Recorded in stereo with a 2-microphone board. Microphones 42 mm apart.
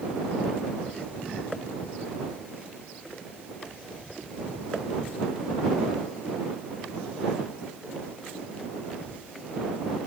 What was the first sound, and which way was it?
Only background noise.